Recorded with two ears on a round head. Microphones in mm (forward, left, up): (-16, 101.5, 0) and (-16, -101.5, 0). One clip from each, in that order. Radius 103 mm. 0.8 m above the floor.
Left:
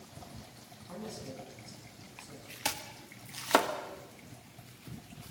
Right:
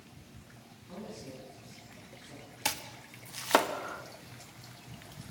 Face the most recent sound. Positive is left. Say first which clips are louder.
# right 1 dB
turn(degrees=-5)  # may be behind; listen again after turning